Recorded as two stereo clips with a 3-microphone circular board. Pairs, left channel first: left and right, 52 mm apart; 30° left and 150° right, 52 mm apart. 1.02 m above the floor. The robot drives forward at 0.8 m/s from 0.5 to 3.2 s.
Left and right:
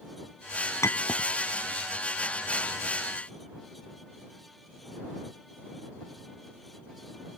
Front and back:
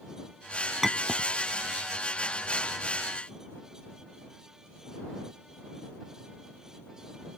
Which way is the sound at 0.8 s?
120° left.